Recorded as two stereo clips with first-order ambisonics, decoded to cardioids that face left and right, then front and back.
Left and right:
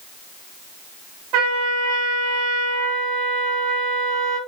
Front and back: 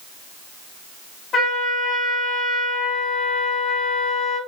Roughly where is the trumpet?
Right.